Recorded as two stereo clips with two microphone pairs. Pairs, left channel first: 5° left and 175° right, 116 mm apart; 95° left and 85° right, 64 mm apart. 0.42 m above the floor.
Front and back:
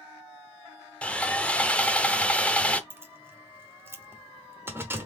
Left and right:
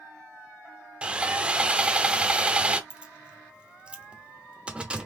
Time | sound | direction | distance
1.0 | sawing | 60° right | 0.6 m
2.9 | keys jangling | 135° right | 0.9 m